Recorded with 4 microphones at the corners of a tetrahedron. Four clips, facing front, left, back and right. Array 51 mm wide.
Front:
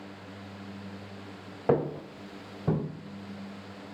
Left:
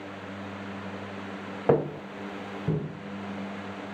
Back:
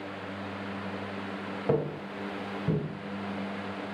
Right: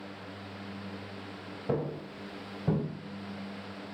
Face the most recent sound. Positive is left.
turn(degrees=-25)